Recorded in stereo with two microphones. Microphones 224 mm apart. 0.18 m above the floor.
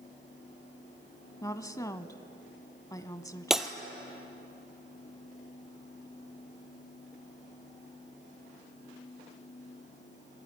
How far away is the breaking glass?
About 1.6 m.